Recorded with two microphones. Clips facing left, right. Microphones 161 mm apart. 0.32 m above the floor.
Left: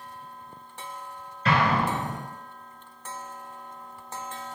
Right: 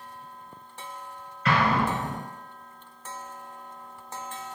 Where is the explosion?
35° left (ahead or behind), 1.5 m.